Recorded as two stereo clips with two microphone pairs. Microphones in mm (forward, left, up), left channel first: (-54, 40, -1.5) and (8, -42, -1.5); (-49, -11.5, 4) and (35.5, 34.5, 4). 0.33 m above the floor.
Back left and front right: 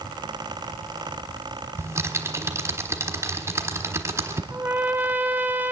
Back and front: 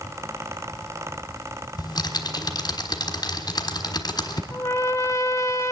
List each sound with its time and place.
1.8 s typing on a keyboard: 115° right, 1.3 m
4.5 s a trumpet: 115° right, 0.9 m